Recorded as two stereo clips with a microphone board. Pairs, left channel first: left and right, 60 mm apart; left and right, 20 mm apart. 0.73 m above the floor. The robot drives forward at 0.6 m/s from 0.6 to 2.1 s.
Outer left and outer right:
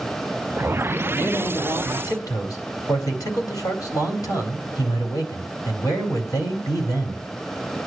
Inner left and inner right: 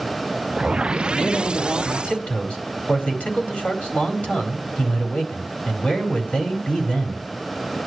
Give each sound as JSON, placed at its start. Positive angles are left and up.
{"t": 1.1, "sound": "a man speaking", "side_deg": 70, "distance_m": 4.5}